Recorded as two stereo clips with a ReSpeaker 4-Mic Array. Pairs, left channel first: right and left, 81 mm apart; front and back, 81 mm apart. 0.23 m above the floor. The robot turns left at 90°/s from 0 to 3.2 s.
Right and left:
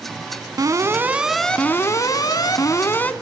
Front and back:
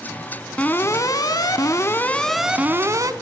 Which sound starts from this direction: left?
An alarm, at 0.6 s.